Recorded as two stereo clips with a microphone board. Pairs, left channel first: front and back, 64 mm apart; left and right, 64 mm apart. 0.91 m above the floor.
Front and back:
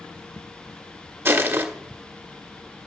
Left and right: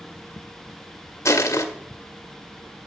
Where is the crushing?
130° left, 1.5 m.